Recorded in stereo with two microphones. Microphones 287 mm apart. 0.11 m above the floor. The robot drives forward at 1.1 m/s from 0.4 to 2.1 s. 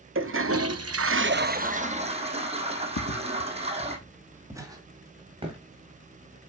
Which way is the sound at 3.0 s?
65° left (ahead or behind).